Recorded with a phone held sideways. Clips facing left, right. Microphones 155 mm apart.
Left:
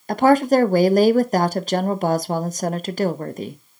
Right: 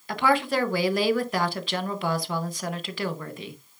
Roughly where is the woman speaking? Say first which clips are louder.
Left 9 dB; left.